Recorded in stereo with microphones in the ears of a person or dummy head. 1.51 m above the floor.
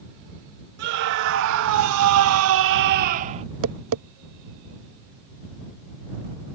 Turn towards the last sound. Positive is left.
turn(degrees=-80)